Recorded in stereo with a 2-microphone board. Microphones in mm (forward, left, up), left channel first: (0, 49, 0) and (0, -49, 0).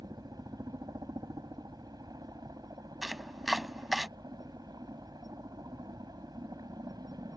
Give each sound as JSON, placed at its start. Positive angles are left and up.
{"t": 0.0, "sound": "a helicopter", "side_deg": -40}
{"t": 3.0, "sound": "chopping", "side_deg": 0}